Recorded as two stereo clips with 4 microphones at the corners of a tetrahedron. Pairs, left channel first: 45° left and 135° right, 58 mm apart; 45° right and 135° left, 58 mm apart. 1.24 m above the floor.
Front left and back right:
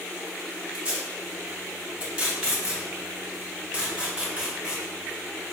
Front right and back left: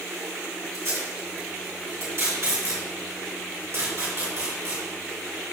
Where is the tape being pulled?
155° left, 2.0 m.